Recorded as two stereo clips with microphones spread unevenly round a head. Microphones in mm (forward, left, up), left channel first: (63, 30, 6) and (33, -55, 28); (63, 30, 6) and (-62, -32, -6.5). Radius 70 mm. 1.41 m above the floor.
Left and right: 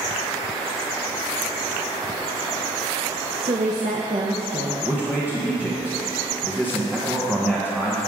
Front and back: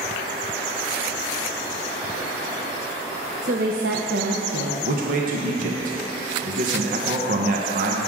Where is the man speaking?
170° left, 1.1 m.